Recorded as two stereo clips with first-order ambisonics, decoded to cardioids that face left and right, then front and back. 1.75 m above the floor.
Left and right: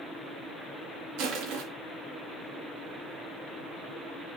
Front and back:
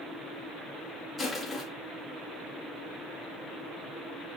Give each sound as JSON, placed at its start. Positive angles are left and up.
{"t": 1.2, "sound": "crushing", "azimuth_deg": -90, "distance_m": 2.5}